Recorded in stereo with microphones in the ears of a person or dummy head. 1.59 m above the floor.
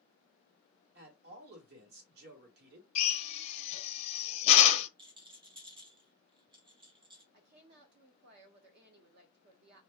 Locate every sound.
0.9 s a man speaking: 55° right (ahead or behind), 1.5 m
3.0 s a drill: 40° left (ahead or behind), 0.6 m
5.0 s a rattle: 25° right (ahead or behind), 0.7 m
7.3 s a woman speaking: 55° right (ahead or behind), 0.8 m